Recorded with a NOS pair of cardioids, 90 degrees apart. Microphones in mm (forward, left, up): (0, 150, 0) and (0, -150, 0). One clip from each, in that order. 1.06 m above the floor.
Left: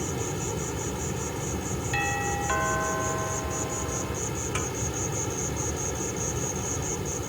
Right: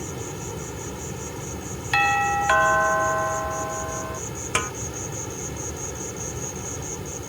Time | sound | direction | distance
0.0 | an insect | 15° left | ?
1.9 | a doorbell | 65° right | ?
4.5 | a snare drum | 70° right | ?